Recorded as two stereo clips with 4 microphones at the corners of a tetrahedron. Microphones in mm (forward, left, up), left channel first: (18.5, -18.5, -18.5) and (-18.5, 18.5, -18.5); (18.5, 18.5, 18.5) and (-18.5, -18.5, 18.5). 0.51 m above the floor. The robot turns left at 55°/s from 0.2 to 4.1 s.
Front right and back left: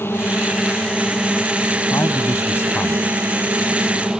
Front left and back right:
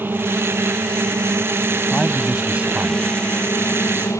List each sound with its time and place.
0.0 s a drone: 90° right; by 4.2 s 55° left
1.9 s a man speaking: 35° right; by 4.2 s 155° right